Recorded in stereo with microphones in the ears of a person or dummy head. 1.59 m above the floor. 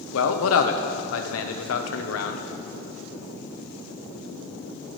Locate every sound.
0.1 s a man speaking: 85° left, 1.1 m